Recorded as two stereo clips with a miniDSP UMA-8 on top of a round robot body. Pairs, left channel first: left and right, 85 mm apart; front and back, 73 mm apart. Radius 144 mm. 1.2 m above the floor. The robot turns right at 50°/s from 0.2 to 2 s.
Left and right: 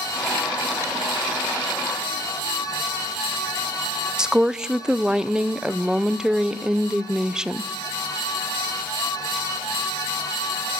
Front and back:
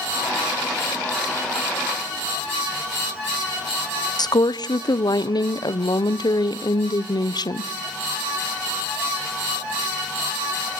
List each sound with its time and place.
4.2 s a woman speaking: 10° right, 0.9 m